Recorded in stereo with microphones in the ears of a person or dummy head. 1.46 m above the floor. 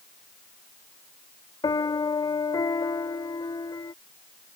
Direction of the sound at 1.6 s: 20° left (ahead or behind).